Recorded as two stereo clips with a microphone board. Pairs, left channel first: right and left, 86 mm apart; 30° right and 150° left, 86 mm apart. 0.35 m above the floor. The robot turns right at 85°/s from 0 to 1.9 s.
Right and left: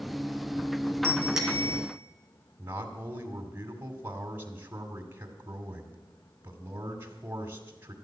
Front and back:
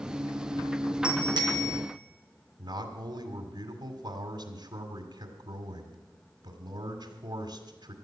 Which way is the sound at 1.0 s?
145° left.